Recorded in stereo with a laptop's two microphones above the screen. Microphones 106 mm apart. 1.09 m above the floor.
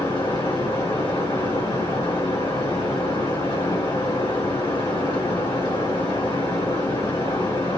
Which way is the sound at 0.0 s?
50° left (ahead or behind).